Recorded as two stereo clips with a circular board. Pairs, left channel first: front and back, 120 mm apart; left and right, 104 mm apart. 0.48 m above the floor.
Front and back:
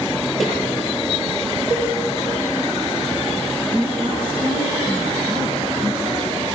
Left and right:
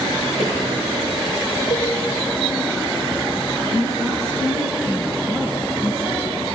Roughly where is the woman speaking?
Behind right.